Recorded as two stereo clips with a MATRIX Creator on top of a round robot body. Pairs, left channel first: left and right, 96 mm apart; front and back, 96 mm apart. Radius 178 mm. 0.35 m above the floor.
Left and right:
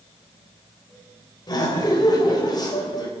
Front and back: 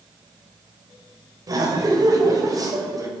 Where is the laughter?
130° left, 2.5 m.